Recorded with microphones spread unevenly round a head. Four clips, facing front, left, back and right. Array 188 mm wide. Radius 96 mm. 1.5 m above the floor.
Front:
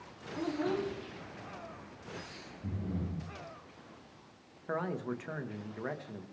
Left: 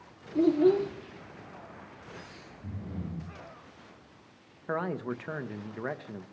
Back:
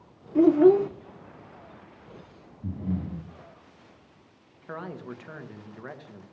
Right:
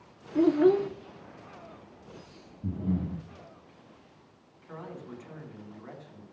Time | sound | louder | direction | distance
0.3 | a child speaking | right 1 dB, back 17 dB | 170° right | 0.6 m
2.6 | breathing | right 9 dB, back 6 dB | 125° right | 6.5 m
4.7 | a man speaking | left 10 dB, front 2 dB | 80° left | 1.8 m